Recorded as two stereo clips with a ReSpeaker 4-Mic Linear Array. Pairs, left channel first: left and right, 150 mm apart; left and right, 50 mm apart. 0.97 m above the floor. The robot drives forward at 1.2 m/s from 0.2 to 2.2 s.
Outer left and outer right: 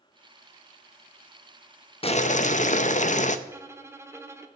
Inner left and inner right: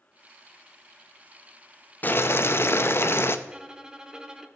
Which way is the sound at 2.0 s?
40° left (ahead or behind).